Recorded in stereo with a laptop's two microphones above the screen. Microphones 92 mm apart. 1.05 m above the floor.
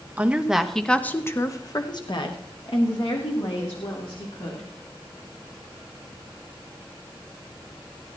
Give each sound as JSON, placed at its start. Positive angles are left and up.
{"t": 0.2, "sound": "a woman speaking", "side_deg": -15, "distance_m": 1.4}